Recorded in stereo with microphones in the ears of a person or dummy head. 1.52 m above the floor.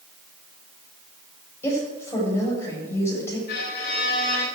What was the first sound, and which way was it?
A woman speaking, 15° left (ahead or behind).